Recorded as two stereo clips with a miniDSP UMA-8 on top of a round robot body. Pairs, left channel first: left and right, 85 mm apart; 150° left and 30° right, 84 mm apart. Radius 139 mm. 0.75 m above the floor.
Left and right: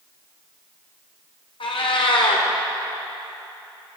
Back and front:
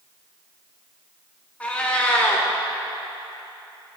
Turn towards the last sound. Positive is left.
turn(degrees=75)